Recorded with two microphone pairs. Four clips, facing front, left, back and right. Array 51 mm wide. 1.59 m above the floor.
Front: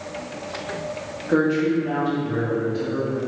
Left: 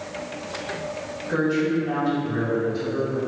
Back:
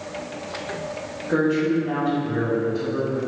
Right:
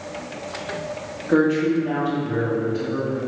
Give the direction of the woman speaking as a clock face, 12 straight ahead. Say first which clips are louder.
Right 4 dB, front 1 dB; 2 o'clock.